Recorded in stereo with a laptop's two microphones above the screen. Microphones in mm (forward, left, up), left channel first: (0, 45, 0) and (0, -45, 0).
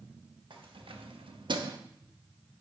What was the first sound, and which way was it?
Keys jangling, 65° right (ahead or behind).